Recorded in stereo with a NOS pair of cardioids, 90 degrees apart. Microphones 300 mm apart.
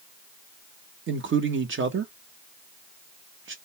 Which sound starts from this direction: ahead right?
A man speaking, at 1.1 s.